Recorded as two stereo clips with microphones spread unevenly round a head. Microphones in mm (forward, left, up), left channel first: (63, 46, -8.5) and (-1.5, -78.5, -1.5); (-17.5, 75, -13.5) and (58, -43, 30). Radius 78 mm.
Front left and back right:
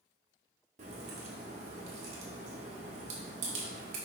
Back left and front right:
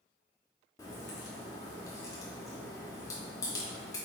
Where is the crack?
160° right, 1.3 m.